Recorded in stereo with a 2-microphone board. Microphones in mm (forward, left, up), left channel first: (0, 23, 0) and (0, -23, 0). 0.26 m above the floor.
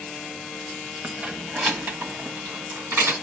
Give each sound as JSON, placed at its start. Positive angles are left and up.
{"t": 1.0, "sound": "keys jangling", "side_deg": -30, "distance_m": 0.9}